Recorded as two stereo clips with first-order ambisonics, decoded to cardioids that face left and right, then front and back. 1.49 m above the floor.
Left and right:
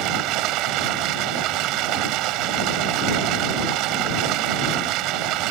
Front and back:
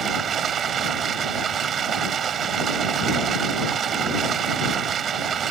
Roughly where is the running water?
Behind right.